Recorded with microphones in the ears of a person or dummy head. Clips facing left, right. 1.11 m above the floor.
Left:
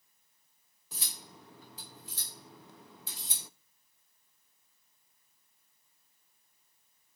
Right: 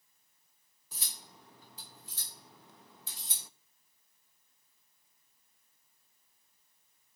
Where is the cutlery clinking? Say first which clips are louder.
Left 4 dB; 65° left (ahead or behind), 0.6 m.